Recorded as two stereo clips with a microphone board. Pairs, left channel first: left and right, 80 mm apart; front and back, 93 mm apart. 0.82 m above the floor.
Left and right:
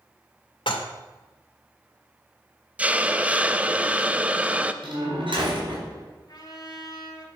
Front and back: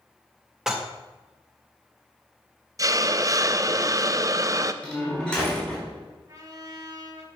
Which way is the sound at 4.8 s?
80° right.